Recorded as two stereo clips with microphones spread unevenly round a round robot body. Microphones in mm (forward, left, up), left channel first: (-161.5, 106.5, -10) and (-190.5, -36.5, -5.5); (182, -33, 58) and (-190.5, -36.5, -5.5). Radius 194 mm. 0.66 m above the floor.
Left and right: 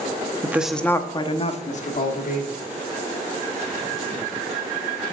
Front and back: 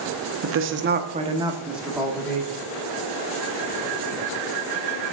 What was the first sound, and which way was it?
A woman speaking, 170° right.